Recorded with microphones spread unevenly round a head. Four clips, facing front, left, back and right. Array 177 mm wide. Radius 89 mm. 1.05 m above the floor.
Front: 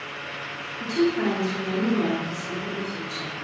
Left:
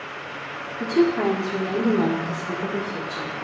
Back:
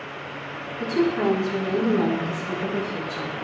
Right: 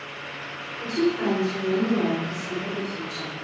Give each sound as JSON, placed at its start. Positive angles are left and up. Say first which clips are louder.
{"t": 0.8, "sound": "a woman speaking", "louder": "left 4 dB, back 1 dB", "azimuth_deg": 100, "distance_m": 2.0}